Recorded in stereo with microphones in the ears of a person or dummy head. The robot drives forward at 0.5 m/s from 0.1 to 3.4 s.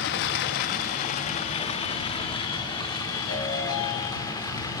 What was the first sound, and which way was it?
Running water, 60° left (ahead or behind).